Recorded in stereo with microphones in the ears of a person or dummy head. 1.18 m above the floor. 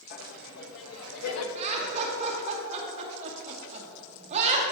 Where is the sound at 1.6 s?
35° right (ahead or behind), 2 m.